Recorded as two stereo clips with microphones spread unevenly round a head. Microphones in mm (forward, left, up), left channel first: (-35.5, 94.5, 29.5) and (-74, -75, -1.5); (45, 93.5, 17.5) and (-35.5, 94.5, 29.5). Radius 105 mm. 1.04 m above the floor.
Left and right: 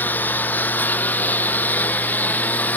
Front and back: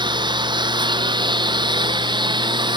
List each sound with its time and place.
0.0 s a lawn mower: 155° left